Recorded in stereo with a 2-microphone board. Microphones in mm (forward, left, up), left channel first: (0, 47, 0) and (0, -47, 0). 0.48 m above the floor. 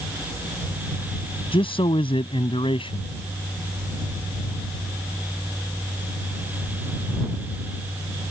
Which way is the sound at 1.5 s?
70° left (ahead or behind).